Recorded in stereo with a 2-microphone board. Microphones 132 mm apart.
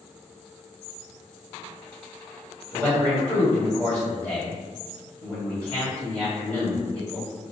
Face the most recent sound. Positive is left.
turn(degrees=10)  # may be behind; listen again after turning